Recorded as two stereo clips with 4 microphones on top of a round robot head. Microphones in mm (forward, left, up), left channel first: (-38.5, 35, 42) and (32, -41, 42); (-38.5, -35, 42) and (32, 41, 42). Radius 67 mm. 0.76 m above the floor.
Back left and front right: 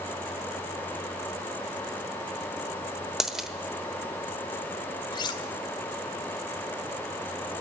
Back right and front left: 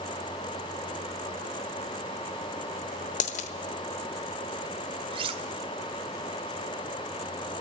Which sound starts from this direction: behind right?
A dropped coin, at 3.2 s.